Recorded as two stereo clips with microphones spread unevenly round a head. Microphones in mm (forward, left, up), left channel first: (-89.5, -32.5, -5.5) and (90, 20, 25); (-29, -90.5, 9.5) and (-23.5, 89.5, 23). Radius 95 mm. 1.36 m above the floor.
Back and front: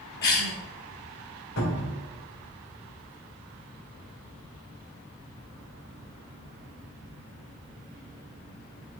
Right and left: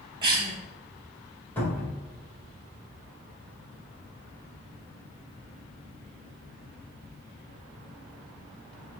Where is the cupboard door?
170° right, 1.8 m.